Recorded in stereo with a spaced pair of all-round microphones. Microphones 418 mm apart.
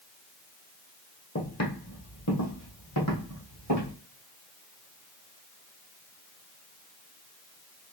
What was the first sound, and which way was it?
Footsteps, 35° left (ahead or behind).